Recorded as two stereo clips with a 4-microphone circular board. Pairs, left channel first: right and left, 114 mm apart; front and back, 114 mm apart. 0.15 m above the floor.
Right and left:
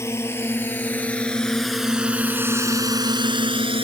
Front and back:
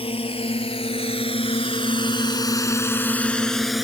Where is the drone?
25° right; by 3.9 s 95° left.